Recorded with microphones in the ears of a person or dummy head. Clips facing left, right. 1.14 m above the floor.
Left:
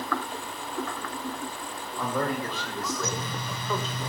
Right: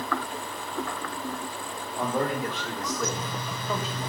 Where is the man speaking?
15° right (ahead or behind), 4 m; by 4.1 s 5° right (ahead or behind), 2.5 m.